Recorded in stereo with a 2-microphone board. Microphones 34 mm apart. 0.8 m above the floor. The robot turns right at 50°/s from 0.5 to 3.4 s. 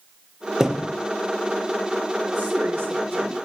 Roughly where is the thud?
Centre.